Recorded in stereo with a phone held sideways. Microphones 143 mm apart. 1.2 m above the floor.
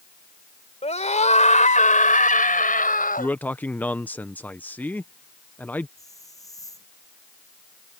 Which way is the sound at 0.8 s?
50° left (ahead or behind).